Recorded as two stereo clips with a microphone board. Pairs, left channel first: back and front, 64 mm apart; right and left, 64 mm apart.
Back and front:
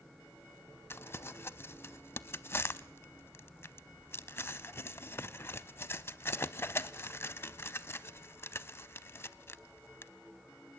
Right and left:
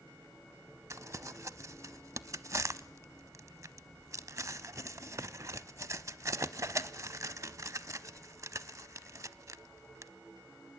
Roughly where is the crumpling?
Behind left.